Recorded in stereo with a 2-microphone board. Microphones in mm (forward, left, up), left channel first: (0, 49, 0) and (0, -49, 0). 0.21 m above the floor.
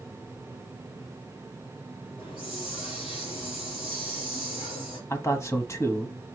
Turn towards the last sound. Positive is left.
turn(degrees=30)  # may be behind; listen again after turning